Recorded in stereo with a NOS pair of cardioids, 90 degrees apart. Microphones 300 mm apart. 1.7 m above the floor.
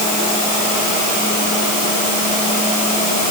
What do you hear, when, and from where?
Only background noise.